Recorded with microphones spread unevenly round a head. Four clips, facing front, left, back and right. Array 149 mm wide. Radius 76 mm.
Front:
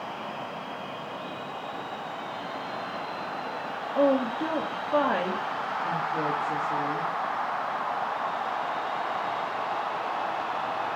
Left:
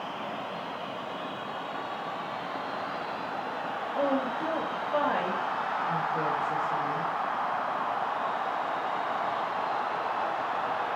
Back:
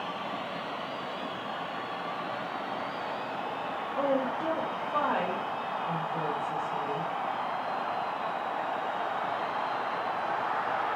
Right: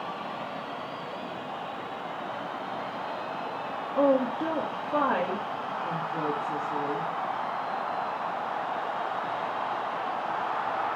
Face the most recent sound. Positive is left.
turn(degrees=-30)